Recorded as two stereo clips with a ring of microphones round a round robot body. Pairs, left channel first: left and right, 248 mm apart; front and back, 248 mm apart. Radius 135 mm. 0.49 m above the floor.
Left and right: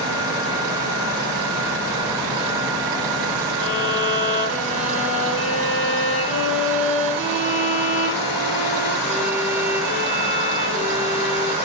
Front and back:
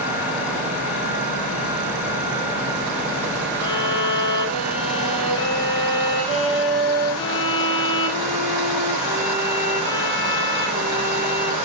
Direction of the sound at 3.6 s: 35° right.